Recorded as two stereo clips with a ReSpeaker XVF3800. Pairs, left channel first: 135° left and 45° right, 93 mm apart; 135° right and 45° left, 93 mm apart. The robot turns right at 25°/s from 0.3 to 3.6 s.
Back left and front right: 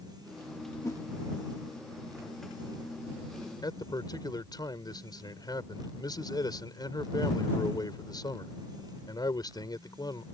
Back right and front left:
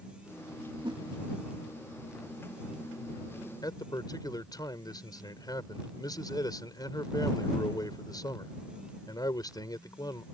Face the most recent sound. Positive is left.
turn(degrees=180)